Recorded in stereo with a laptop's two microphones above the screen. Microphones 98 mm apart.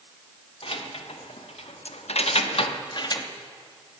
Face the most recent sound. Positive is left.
turn(degrees=35)  # may be behind; listen again after turning